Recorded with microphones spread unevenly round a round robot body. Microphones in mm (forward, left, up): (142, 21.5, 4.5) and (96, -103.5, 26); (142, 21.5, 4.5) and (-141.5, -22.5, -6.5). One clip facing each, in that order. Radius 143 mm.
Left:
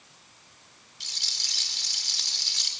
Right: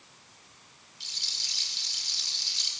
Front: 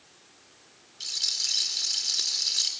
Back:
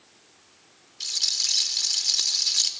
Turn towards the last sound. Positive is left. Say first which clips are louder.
# left 4 dB, back 1 dB
turn(degrees=115)